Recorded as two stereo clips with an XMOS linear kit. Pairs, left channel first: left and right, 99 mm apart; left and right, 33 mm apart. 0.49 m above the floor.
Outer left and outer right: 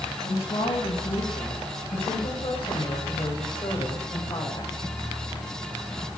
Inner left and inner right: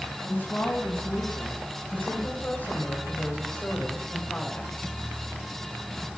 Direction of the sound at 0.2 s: 70° left (ahead or behind).